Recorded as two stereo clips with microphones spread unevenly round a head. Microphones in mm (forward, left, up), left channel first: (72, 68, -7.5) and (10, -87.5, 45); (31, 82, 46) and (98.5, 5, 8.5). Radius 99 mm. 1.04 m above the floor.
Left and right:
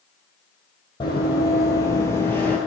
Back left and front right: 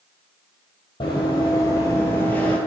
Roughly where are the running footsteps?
Behind left.